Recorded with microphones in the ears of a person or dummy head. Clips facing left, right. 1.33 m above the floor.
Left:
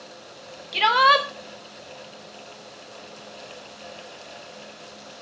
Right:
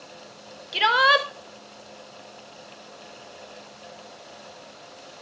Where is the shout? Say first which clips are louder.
Left 1 dB; 5° right (ahead or behind), 1.3 m.